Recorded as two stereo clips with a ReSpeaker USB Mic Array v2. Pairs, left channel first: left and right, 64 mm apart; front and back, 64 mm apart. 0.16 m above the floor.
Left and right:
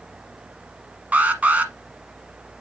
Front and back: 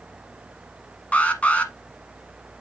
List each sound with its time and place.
1.1 s an alarm: 50° right, 1.1 m